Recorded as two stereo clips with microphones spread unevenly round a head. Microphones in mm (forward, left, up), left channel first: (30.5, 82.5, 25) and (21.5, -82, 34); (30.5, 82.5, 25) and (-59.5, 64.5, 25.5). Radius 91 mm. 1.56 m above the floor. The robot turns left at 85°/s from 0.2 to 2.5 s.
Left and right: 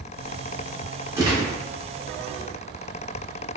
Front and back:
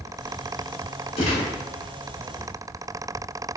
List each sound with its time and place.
1.2 s a gunshot: 20° right, 1.6 m; by 1.5 s 50° right, 1.6 m